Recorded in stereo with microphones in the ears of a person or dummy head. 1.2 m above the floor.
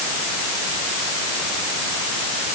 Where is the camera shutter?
I don't hear a camera shutter.